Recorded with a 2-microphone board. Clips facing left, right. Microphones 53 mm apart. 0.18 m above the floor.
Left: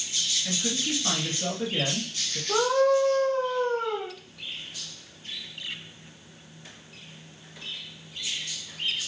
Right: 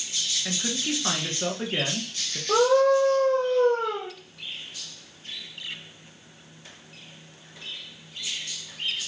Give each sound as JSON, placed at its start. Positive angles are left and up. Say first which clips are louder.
{"t": 0.5, "sound": "a man speaking", "louder": "right 2 dB", "side_deg": -35, "distance_m": 2.5}
{"t": 2.5, "sound": "a scream", "louder": "right 3 dB", "side_deg": -60, "distance_m": 3.5}